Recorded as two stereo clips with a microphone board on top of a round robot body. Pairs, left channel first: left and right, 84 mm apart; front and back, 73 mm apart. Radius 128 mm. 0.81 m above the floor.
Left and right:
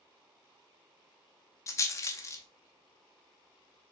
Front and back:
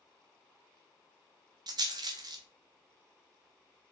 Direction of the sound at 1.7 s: 145° left.